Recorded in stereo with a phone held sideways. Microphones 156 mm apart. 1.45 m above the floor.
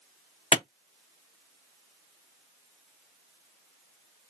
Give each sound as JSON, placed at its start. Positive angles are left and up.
{"t": 0.5, "sound": "a clap", "side_deg": 40, "distance_m": 0.5}